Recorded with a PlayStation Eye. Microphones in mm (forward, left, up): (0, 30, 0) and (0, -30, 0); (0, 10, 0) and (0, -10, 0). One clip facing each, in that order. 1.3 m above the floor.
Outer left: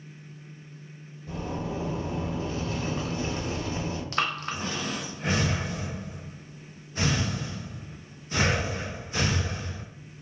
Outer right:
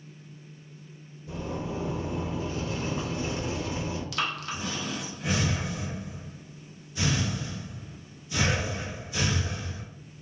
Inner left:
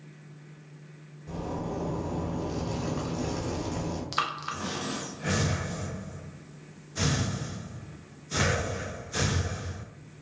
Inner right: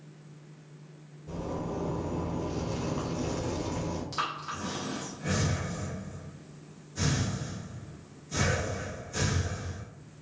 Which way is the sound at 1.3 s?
50° left (ahead or behind).